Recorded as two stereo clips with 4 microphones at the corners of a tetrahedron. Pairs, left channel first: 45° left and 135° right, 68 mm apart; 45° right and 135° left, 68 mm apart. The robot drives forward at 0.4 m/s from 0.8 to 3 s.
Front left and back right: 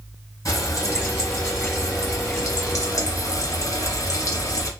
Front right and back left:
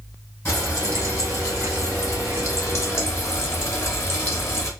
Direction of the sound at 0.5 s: 5° left.